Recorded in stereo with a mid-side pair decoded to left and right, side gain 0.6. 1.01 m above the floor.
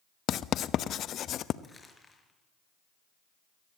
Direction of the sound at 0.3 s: 50° left.